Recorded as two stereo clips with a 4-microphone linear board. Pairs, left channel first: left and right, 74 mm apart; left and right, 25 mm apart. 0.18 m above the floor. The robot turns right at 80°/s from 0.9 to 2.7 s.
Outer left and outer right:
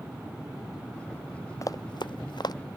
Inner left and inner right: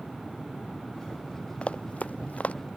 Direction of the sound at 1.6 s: 45° left (ahead or behind).